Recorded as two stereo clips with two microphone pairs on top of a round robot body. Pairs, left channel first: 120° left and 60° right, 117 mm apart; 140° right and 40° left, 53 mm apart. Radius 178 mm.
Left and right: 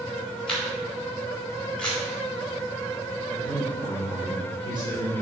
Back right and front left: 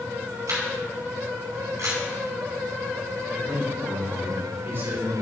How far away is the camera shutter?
About 4 m.